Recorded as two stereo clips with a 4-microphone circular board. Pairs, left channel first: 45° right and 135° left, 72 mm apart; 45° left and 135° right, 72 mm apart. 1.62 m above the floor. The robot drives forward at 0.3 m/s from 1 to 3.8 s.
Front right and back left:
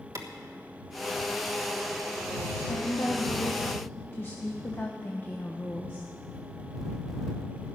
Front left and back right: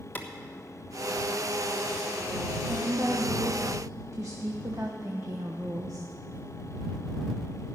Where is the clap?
105° left, 1.4 m.